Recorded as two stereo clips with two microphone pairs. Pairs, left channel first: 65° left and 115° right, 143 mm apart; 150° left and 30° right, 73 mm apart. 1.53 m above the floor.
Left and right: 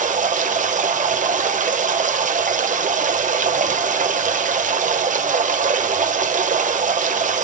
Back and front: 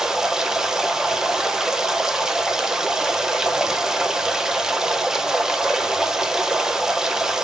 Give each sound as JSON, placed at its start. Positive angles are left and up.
{"t": 0.0, "sound": "running water", "azimuth_deg": -115, "distance_m": 0.8}